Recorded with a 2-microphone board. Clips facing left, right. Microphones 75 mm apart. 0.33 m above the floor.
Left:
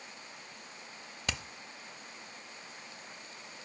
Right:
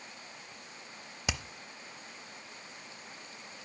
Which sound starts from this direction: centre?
Hammering, at 1.3 s.